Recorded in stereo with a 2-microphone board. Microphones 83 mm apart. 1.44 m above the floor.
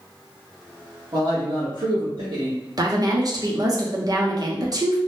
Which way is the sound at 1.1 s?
60° right (ahead or behind).